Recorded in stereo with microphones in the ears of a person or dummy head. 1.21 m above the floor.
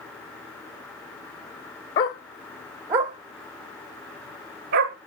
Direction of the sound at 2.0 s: 30° left (ahead or behind).